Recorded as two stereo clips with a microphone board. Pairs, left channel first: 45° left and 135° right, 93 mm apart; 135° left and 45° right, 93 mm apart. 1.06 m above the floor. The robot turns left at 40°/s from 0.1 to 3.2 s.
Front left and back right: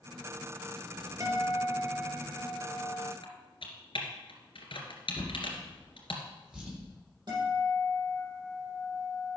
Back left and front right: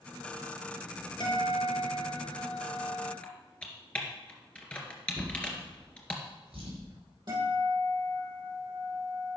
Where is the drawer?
55° right, 7.5 m.